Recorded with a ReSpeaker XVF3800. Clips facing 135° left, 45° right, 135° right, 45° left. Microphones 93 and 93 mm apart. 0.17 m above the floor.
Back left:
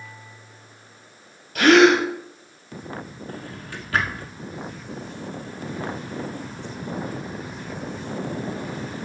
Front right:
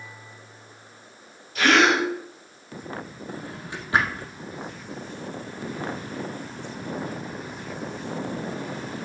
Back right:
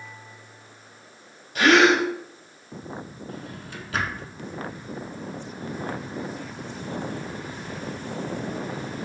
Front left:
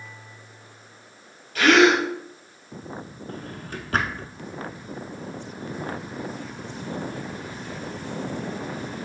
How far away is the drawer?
About 0.7 m.